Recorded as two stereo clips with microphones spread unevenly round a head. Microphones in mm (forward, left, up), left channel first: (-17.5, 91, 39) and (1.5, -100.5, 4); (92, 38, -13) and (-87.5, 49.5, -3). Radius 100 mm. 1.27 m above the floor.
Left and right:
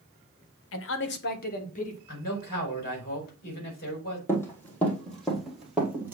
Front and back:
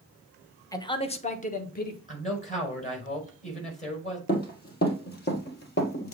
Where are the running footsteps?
25° left, 2.5 m; by 6.2 s 5° left, 1.8 m.